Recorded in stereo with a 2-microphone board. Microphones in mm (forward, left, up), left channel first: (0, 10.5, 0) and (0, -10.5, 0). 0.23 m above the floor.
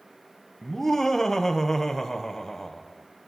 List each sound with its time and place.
0.6 s laughter: 20° left (ahead or behind), 1.0 m